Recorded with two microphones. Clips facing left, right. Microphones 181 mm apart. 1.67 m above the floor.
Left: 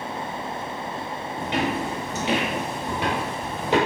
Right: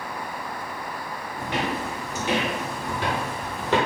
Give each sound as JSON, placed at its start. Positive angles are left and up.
{"t": 1.4, "sound": "footsteps", "side_deg": 20, "distance_m": 1.8}